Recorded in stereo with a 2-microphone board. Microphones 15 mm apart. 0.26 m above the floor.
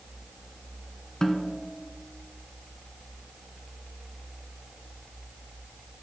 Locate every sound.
1.2 s a snare drum: 30° left (ahead or behind), 0.7 m